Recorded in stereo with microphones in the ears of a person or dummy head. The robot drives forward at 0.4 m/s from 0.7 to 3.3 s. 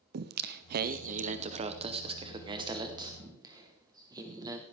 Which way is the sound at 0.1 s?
50° right (ahead or behind).